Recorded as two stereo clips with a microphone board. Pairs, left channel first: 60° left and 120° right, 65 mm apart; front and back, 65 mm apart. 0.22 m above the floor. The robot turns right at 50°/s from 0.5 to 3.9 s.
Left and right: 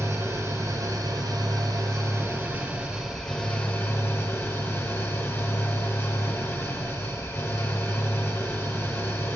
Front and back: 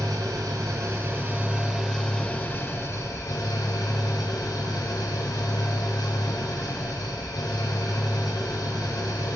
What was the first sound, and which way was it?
An engine running, 160° right.